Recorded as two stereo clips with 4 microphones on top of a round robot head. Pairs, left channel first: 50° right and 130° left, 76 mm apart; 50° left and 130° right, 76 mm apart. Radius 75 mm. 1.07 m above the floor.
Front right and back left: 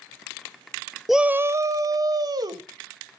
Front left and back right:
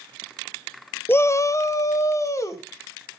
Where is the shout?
40° left, 0.5 m; by 3.2 s 100° left, 2.5 m.